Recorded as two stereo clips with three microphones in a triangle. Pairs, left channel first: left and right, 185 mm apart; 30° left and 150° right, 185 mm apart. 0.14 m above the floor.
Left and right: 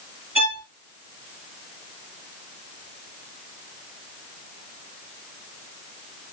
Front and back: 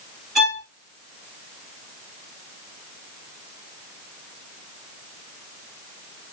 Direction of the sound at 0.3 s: 60° right.